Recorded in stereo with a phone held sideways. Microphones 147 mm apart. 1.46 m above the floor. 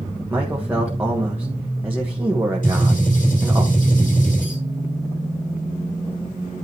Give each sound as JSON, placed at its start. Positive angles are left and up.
{"t": 0.3, "sound": "a man speaking", "side_deg": -15, "distance_m": 1.6}
{"t": 2.6, "sound": "a gunshot", "side_deg": 65, "distance_m": 5.5}